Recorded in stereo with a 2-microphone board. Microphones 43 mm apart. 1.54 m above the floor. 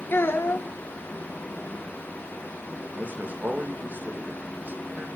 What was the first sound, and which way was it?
A child speaking, 55° left (ahead or behind).